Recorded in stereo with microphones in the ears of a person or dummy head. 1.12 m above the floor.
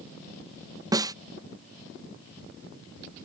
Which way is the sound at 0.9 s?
20° right (ahead or behind).